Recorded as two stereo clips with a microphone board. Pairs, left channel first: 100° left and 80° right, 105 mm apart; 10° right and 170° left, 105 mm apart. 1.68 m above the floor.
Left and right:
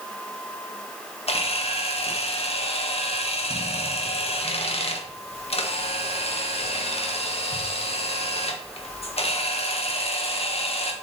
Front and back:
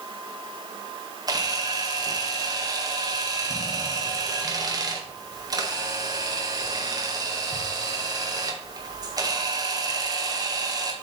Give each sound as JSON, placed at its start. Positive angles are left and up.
{"t": 1.3, "sound": "a camera shutter", "azimuth_deg": 120, "distance_m": 1.8}